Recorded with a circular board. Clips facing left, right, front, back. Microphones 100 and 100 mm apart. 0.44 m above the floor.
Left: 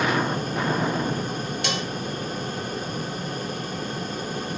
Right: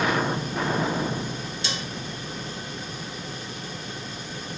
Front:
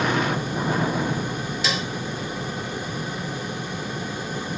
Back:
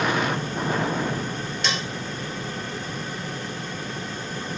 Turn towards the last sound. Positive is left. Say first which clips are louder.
# left 5 dB, front 1 dB
turn(degrees=85)